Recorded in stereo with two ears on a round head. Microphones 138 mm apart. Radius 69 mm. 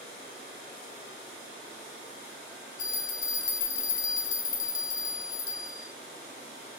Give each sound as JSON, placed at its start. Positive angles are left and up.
{"t": 2.8, "sound": "a bell", "side_deg": 55, "distance_m": 1.9}